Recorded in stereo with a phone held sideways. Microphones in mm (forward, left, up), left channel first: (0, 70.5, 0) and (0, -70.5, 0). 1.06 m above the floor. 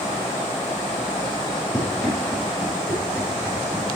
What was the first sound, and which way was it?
Running footsteps, 5° right (ahead or behind).